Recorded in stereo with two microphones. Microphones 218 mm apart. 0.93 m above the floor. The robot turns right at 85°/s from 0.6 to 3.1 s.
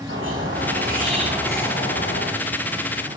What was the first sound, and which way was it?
A squeak, 80° right.